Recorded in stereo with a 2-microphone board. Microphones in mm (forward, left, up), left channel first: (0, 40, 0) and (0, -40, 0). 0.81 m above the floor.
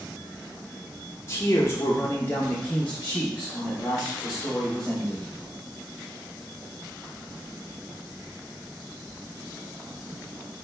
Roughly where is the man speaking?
Left.